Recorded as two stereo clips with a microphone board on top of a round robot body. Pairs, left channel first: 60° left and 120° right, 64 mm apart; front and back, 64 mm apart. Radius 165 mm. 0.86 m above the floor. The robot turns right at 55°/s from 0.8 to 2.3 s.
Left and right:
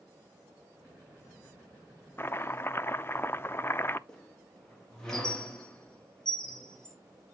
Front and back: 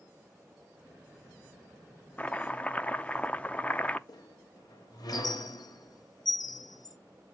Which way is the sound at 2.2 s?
45° left.